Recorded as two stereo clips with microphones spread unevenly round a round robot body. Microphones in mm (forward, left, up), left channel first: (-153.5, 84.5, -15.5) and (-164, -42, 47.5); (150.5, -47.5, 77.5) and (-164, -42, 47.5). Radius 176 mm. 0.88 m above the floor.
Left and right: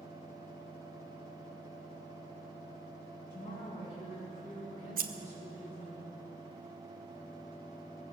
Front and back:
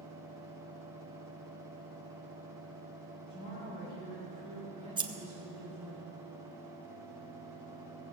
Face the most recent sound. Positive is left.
turn(degrees=-105)